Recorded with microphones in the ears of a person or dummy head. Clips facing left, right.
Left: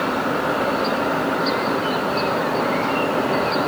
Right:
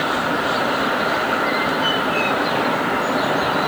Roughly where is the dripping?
No dripping in this recording.